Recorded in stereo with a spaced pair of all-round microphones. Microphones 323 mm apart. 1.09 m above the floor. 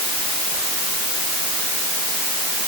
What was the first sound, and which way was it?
Only background noise.